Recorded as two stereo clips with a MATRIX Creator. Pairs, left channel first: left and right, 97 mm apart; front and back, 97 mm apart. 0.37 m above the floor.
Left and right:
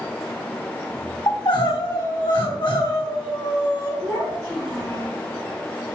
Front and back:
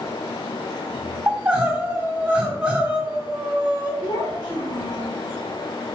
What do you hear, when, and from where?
1.3 s crying: 105° left, 3 m
4.0 s a child speaking: straight ahead, 2.5 m